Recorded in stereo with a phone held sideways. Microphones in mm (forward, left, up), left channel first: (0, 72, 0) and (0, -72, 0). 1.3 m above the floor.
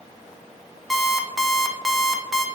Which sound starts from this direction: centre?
An alarm clock, at 0.9 s.